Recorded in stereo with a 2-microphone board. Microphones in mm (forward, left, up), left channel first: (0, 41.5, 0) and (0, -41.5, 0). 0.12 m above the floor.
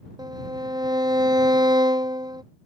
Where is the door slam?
I don't hear a door slam.